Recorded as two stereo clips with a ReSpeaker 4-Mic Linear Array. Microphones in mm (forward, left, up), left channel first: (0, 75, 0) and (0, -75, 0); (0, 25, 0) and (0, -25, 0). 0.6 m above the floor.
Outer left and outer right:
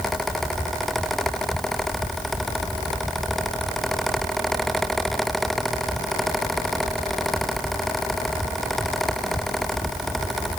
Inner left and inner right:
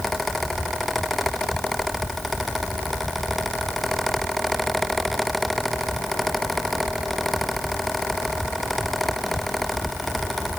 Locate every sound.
Only background noise.